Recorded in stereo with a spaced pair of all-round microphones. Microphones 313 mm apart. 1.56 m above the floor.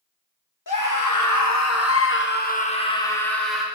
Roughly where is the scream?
Left.